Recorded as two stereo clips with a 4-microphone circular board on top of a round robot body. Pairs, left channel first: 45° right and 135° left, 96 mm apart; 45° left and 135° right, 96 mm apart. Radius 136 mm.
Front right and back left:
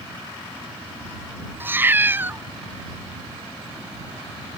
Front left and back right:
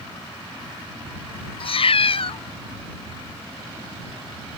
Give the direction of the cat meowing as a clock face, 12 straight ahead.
10 o'clock.